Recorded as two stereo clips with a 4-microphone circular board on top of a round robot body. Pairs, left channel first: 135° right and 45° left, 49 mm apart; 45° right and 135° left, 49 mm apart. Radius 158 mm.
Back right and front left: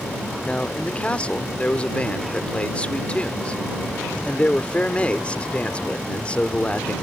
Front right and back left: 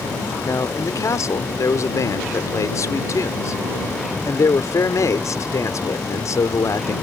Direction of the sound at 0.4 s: 65° right.